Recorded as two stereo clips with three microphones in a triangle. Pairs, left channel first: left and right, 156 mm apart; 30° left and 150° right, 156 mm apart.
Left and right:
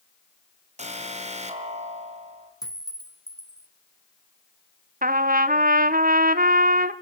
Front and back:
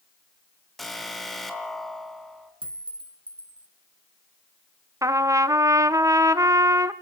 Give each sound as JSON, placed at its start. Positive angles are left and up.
{"t": 0.8, "sound": "an alarm", "azimuth_deg": -60, "distance_m": 3.5}
{"t": 2.6, "sound": "a clink", "azimuth_deg": 155, "distance_m": 2.0}
{"t": 5.0, "sound": "a trumpet", "azimuth_deg": -80, "distance_m": 0.9}